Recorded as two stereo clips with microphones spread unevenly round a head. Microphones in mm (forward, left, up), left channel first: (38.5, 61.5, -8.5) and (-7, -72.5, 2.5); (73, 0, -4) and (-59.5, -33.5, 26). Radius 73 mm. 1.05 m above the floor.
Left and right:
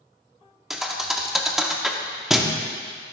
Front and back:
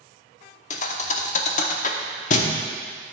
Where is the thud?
25° right, 0.8 m.